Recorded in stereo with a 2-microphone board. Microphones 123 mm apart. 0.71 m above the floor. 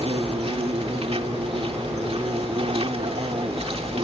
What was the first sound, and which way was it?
An insect, 55° right (ahead or behind).